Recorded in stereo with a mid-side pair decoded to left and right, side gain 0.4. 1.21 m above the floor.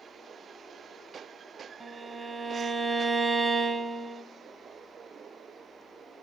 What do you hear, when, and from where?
1.8 s a violin: 40° right, 0.7 m